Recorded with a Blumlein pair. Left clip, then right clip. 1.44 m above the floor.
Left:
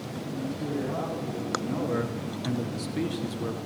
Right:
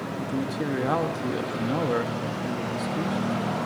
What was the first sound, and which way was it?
A man speaking, 65° right.